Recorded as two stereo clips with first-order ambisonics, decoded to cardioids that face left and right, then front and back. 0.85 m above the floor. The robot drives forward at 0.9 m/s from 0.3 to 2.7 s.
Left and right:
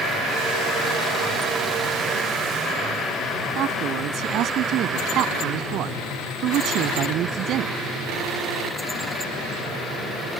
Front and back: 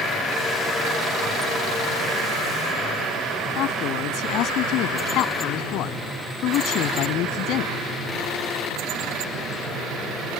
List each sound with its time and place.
3.5 s a man speaking: 40° right